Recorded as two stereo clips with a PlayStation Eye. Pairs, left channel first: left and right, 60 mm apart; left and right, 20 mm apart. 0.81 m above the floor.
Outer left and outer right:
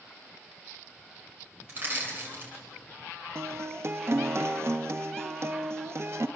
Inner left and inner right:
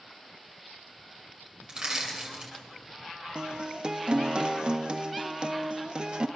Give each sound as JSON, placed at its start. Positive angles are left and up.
{"t": 1.7, "sound": "crushing", "side_deg": -40, "distance_m": 8.5}
{"t": 3.4, "sound": "a guitar", "side_deg": -50, "distance_m": 0.8}